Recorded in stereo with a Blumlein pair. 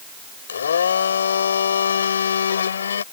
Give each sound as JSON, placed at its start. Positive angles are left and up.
{"t": 0.5, "sound": "a blender", "azimuth_deg": 70}